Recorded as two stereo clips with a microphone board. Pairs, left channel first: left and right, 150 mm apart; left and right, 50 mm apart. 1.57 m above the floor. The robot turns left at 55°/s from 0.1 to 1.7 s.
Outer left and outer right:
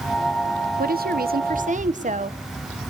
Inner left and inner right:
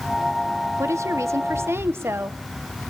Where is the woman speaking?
75° right, 1.2 m; by 2.4 s 125° right, 1.2 m.